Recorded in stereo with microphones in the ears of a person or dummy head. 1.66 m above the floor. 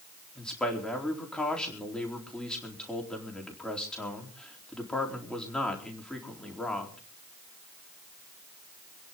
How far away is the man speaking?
About 4 m.